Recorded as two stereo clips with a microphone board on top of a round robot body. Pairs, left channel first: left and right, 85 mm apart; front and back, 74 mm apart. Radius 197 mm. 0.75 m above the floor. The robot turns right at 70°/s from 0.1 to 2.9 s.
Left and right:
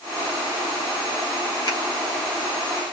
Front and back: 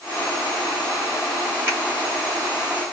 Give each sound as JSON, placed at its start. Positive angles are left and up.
{"t": 1.7, "sound": "a finger snap", "azimuth_deg": 120, "distance_m": 2.5}